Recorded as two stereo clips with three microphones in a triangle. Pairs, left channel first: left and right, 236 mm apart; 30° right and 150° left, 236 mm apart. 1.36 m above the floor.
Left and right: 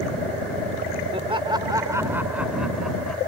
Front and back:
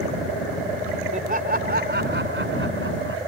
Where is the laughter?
155° right; by 3.2 s 175° left.